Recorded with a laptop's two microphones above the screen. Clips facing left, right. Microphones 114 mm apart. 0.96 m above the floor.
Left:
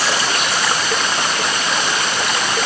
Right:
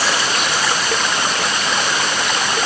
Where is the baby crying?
No baby crying in this recording.